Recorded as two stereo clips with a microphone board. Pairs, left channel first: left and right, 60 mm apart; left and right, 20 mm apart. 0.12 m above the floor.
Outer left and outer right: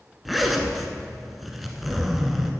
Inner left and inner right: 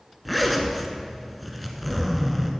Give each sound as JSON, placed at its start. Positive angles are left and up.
{"t": 0.2, "sound": "a zipper", "side_deg": 0, "distance_m": 1.2}